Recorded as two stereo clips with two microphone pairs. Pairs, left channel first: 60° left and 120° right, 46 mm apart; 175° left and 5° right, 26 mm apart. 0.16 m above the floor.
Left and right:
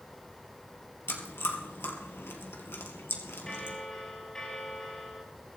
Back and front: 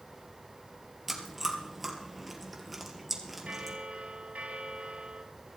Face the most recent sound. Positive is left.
turn(degrees=-15)